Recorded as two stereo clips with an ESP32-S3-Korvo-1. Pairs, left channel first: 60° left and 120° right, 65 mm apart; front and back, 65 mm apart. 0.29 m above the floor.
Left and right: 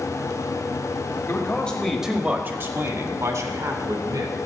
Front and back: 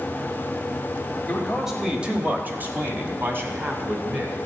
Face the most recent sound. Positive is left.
turn(degrees=-125)